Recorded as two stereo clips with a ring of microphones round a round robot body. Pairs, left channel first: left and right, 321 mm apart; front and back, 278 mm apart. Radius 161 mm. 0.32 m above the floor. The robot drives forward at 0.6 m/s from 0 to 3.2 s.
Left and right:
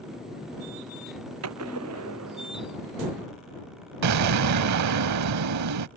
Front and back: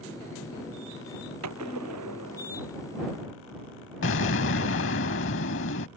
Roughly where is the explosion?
Ahead right.